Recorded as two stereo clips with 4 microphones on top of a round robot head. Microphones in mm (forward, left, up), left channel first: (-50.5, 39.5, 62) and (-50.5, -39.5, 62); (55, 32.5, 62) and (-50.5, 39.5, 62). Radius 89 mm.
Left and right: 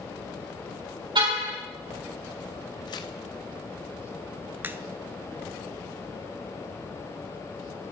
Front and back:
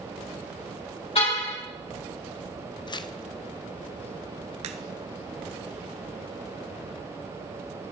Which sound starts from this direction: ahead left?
Tearing paper, at 2.9 s.